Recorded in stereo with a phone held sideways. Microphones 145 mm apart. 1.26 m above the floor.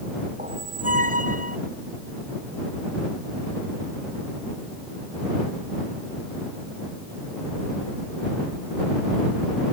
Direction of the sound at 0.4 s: 60° right (ahead or behind).